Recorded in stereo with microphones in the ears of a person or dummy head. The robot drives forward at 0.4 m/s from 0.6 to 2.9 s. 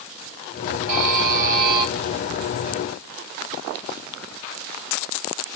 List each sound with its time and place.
0.9 s a buzzer: 40° right (ahead or behind), 2.5 m; by 1.9 s 50° right (ahead or behind), 2.5 m